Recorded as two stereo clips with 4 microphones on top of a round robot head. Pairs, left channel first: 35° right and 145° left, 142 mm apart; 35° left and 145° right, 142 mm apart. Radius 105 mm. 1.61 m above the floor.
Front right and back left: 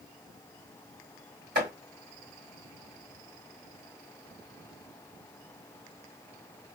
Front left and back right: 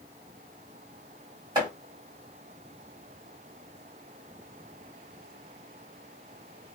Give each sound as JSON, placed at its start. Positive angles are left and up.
{"t": 1.6, "sound": "chopping", "azimuth_deg": 160, "distance_m": 1.8}